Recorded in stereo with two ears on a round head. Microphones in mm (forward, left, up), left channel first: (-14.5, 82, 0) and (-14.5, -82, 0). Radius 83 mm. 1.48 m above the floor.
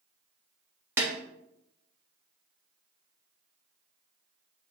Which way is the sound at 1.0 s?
15° right (ahead or behind).